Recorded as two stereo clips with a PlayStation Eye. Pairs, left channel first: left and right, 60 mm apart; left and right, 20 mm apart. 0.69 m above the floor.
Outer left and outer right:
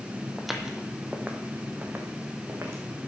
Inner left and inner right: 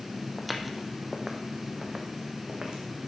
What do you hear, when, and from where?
0.4 s footsteps: centre (ahead or behind), 1.1 m; by 3.1 s 45° right (ahead or behind), 2.5 m